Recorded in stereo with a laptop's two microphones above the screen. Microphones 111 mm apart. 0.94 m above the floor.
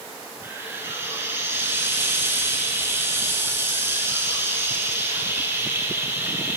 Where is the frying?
20° right (ahead or behind), 3.5 m.